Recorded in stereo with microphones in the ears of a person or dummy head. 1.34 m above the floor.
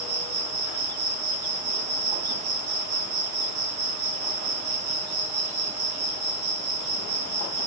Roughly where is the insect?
Right.